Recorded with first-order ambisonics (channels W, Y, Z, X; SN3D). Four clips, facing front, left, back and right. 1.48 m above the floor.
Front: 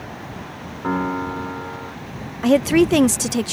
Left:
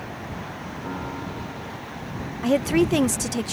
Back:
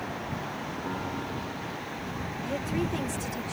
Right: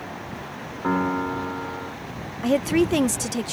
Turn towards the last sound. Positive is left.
turn(degrees=0)